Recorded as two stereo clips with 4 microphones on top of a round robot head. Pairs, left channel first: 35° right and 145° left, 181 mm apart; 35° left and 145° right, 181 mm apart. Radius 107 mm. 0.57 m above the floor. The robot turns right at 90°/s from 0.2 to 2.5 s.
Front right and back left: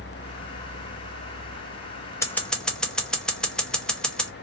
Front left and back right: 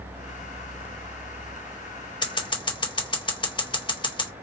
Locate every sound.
2.2 s scissors: 20° left, 1.3 m; by 4.3 s 45° left, 1.3 m